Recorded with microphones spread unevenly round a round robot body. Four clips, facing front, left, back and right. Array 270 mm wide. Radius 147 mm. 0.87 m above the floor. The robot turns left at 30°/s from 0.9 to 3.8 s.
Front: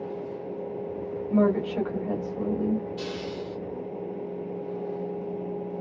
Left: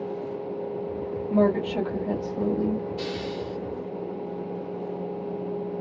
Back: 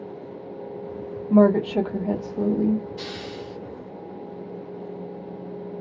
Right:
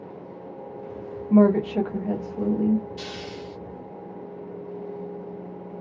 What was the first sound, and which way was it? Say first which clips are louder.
A woman speaking: right 4 dB, back 6 dB; 165° right.